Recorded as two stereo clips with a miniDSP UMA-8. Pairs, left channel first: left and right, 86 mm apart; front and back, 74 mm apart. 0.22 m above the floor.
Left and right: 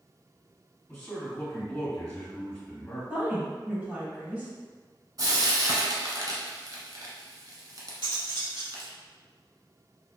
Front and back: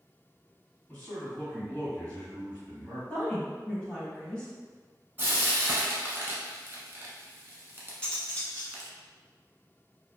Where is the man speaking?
50° left, 1.5 m.